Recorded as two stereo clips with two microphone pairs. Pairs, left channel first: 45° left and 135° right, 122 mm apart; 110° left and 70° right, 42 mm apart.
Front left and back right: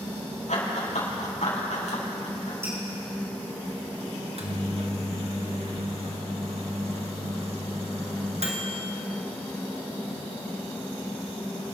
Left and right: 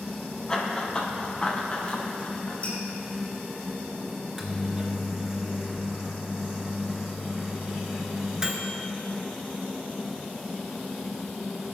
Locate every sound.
0.5 s running footsteps: 40° left, 3.5 m; by 2.5 s 60° left, 4 m
2.6 s dripping: 155° left, 4.5 m
4.2 s a microwave: 145° right, 1.9 m